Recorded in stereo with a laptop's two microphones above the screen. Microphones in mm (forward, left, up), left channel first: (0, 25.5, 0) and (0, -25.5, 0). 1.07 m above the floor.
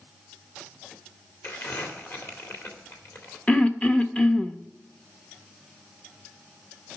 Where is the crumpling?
50° left (ahead or behind), 2 m.